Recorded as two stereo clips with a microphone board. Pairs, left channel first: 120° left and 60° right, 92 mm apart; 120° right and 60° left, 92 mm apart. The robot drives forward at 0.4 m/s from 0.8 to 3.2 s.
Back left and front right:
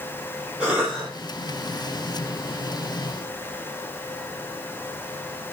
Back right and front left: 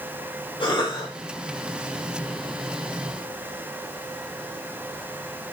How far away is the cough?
About 3.5 m.